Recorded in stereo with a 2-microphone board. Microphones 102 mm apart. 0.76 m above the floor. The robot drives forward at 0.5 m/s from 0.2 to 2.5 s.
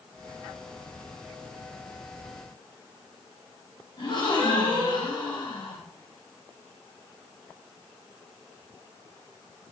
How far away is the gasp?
About 5.5 m.